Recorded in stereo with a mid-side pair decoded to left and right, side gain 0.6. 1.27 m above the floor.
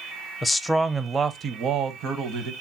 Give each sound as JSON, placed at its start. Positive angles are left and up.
{"t": 0.4, "sound": "a man speaking", "azimuth_deg": 15, "distance_m": 0.5}